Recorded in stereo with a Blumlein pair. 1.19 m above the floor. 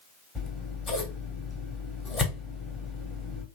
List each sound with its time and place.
0.3 s scissors: 20° left, 1.0 m